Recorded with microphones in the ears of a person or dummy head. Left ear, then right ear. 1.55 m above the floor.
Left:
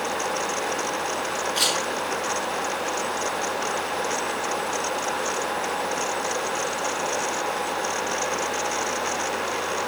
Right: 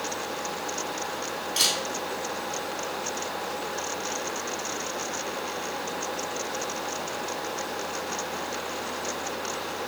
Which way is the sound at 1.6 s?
5° right (ahead or behind).